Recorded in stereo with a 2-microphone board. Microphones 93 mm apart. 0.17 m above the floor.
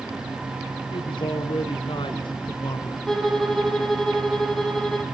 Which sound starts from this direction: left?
A man speaking, at 0.9 s.